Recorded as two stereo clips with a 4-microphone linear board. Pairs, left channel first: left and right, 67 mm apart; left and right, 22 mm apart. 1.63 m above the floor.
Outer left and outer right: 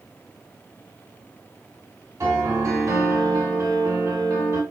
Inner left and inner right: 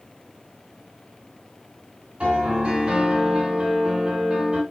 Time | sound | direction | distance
2.2 | a piano | 50° right (ahead or behind) | 2.5 m